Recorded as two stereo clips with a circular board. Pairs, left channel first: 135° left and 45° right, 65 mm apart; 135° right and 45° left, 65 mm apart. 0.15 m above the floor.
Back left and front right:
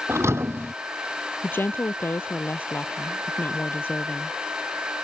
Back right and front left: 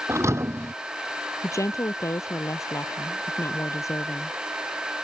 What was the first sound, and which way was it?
A thud, straight ahead.